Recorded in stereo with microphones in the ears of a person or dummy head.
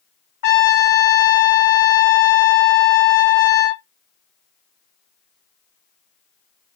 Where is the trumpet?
55° left (ahead or behind), 0.6 m.